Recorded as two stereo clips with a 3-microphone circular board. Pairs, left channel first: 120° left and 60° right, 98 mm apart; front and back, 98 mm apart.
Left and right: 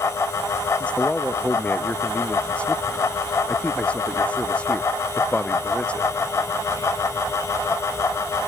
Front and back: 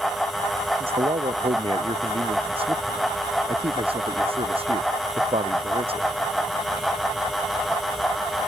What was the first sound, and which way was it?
A man speaking, 160° right.